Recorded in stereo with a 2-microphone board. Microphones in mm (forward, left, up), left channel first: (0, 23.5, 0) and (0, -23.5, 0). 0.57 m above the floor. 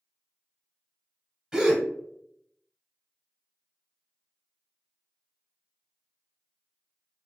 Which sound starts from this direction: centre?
A gasp, at 1.5 s.